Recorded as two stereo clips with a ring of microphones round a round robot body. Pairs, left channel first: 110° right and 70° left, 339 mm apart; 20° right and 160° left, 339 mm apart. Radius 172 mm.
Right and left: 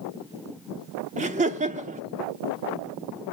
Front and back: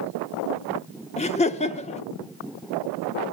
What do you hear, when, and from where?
1.2 s laughter: 25° left, 1.2 m